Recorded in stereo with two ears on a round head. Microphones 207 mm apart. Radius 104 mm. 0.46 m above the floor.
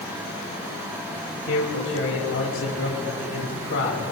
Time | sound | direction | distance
1.5 | a man speaking | 60° left (ahead or behind) | 3 m